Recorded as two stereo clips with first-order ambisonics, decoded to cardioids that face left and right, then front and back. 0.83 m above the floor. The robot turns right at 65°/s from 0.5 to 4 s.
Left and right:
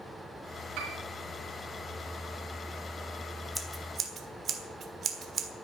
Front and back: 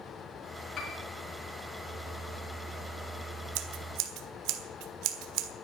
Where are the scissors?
Straight behind, 1.4 m; by 5.5 s 150° right, 1.4 m.